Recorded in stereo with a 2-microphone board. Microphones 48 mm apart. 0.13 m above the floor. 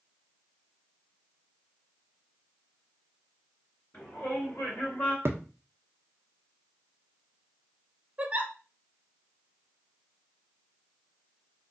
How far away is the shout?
About 2 m.